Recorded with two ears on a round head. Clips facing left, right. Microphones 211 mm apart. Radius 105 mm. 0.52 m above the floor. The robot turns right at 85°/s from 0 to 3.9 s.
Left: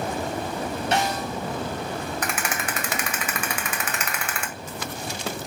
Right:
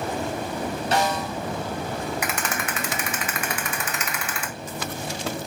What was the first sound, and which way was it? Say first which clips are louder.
A snare drum: right 2 dB; 150° right.